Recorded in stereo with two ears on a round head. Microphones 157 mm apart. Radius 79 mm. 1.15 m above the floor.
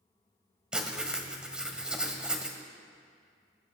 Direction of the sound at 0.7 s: 5° right (ahead or behind).